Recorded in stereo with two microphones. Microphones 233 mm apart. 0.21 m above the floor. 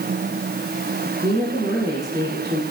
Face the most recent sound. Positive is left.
turn(degrees=-15)  # may be behind; listen again after turning